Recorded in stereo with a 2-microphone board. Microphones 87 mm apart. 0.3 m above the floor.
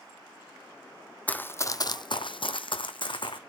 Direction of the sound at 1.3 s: 15° left (ahead or behind).